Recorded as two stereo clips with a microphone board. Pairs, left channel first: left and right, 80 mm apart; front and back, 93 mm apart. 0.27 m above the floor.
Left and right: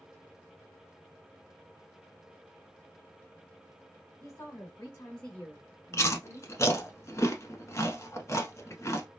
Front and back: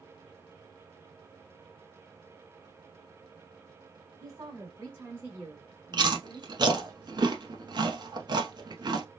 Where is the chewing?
140° left, 0.7 m.